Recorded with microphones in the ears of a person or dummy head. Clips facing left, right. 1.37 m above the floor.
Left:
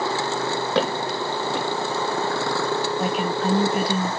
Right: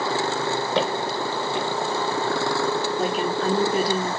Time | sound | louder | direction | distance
0.8 | footsteps | left 3 dB | 60° left (ahead or behind) | 3 m
3.0 | a woman speaking | even | 35° right (ahead or behind) | 1.8 m